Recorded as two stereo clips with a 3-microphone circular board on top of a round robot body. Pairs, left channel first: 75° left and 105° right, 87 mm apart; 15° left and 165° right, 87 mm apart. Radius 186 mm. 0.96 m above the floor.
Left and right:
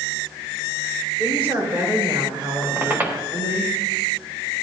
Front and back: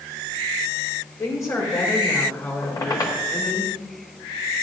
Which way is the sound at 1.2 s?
35° right.